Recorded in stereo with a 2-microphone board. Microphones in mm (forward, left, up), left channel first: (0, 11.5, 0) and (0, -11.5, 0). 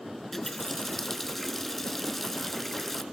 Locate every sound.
0.3 s a running tap: 15° left (ahead or behind), 1.2 m